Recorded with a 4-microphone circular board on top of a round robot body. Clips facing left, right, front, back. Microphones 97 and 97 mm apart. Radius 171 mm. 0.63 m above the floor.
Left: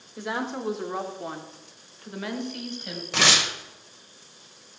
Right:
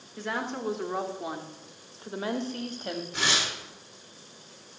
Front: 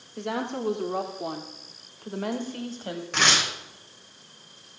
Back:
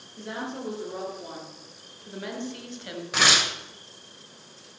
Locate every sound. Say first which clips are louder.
0.2 s a woman speaking: left 2 dB, front 5 dB; 15° left, 2.5 m; by 3.0 s 50° right, 2.5 m
3.1 s tearing paper: left 7 dB, back 1 dB; 95° left, 1.8 m